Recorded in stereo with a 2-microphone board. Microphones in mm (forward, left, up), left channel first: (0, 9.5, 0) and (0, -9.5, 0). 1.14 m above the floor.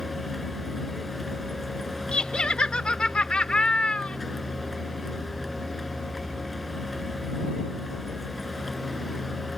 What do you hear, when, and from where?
0.0 s a vehicle: 5° left (ahead or behind)
2.1 s laughter: 60° left (ahead or behind)